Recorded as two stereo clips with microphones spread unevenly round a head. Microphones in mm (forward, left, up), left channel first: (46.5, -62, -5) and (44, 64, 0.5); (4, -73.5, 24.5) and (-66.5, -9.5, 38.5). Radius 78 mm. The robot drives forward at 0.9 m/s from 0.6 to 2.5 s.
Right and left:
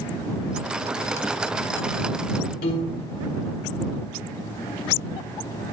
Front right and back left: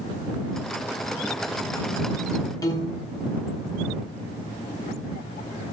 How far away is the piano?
About 1.7 m.